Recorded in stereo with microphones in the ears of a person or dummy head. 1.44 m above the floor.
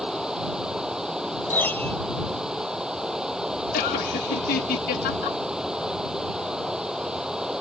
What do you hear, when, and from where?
0.0 s running water: centre (ahead or behind)
1.5 s a piano: 15° left (ahead or behind)
3.7 s laughter: 50° left (ahead or behind)